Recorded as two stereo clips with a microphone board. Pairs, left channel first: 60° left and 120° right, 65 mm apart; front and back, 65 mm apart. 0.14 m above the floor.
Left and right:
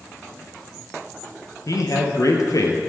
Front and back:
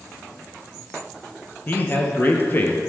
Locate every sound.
1.7 s a man speaking: 50° left, 3 m